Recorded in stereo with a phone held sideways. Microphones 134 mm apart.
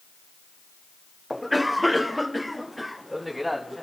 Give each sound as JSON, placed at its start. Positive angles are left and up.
{"t": 1.3, "sound": "a cough", "side_deg": 0, "distance_m": 0.6}